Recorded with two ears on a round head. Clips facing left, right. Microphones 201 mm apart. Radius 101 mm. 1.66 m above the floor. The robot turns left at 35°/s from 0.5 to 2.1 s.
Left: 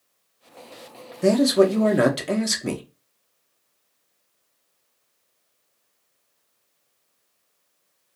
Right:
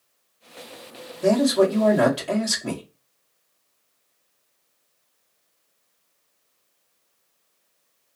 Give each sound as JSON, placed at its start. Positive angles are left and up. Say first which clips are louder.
{"t": 1.2, "sound": "a man speaking", "louder": "left 1 dB", "side_deg": 25, "distance_m": 0.6}